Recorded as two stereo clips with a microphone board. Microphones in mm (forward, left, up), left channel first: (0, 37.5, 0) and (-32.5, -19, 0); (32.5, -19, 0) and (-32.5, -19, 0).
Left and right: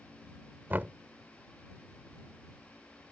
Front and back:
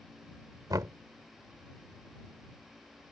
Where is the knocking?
175° right.